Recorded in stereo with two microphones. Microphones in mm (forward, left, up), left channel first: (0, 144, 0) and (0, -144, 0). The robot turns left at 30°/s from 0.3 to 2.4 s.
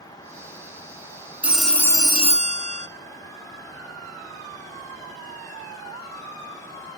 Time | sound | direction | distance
1.4 | a phone ringing | 5° right (ahead or behind) | 0.6 m